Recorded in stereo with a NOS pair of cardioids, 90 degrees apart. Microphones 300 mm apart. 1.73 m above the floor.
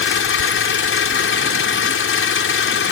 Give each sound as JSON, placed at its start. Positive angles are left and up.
{"t": 0.0, "sound": "an engine running", "azimuth_deg": 45}